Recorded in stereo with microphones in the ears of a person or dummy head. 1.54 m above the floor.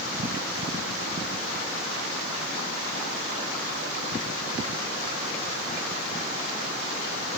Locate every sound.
Only background noise.